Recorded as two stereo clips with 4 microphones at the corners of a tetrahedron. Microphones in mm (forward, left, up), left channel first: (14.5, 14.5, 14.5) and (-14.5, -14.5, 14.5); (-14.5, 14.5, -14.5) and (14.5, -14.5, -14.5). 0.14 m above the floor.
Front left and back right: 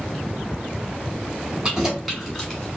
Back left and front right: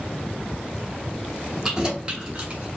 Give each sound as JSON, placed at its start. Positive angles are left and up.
{"t": 1.6, "sound": "keys jangling", "azimuth_deg": -100, "distance_m": 1.1}